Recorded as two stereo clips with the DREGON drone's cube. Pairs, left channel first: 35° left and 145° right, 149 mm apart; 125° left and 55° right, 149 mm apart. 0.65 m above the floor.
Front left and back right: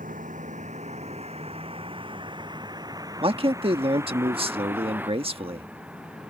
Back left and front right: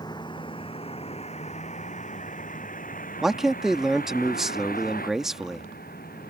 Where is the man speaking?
140° right.